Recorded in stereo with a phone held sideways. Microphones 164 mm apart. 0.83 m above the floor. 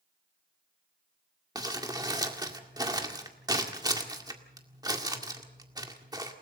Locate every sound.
1.6 s crumpling: 20° right (ahead or behind), 1.9 m